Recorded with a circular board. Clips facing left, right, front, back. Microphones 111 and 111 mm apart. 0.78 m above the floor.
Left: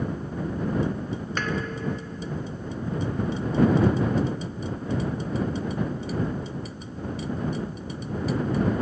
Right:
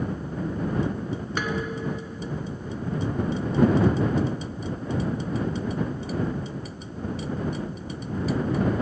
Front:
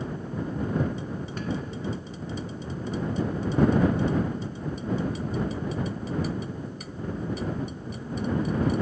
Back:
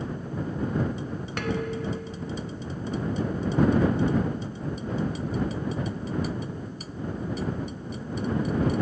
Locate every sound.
1.4 s dishes clattering: 170° right